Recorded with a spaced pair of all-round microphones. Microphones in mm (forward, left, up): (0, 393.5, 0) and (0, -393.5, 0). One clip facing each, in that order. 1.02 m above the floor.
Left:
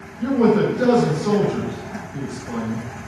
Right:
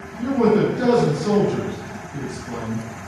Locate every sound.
0.2 s a man speaking: 30° right (ahead or behind), 1.2 m